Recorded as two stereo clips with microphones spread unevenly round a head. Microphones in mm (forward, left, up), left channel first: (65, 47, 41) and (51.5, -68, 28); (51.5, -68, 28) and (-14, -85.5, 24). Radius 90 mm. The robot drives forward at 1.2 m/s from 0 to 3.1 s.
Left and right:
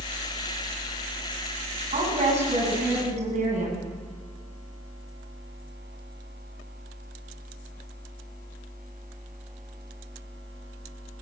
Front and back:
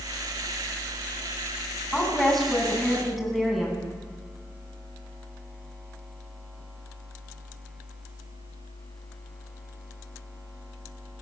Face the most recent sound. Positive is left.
turn(degrees=-75)